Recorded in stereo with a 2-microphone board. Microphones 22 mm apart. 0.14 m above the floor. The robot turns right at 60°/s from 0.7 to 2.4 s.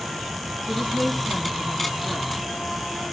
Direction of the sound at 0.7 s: 125° right.